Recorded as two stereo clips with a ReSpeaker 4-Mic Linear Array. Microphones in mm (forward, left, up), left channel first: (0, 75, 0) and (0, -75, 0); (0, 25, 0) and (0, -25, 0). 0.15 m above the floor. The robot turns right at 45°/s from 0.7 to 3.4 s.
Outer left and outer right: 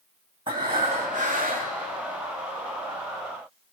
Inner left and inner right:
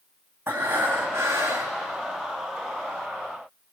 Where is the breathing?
145° right, 2 m; by 1.8 s 100° right, 2 m.